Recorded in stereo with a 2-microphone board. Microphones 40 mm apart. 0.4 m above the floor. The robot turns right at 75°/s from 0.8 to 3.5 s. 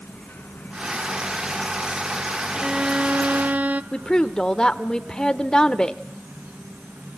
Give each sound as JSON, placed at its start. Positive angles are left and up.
{"t": 0.0, "sound": "an insect", "azimuth_deg": 65, "distance_m": 5.0}
{"t": 2.5, "sound": "a violin", "azimuth_deg": -160, "distance_m": 0.6}
{"t": 3.9, "sound": "a woman speaking", "side_deg": 20, "distance_m": 0.8}